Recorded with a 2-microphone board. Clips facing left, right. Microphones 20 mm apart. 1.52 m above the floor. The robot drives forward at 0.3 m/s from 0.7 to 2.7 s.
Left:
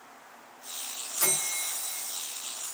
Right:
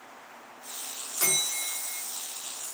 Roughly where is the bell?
Centre.